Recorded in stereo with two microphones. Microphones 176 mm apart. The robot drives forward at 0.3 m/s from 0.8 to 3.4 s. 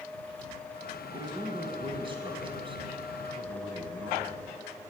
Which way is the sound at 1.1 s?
25° right (ahead or behind).